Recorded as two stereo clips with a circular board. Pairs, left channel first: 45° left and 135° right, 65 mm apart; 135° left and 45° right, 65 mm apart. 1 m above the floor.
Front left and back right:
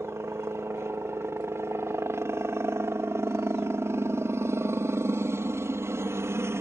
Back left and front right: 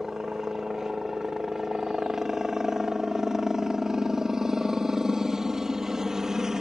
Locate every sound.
0.0 s a helicopter: 125° right